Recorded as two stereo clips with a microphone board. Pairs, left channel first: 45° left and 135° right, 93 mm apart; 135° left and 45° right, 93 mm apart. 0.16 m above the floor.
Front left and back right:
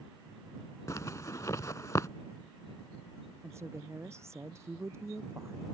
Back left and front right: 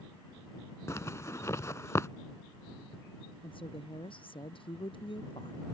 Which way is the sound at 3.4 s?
165° left.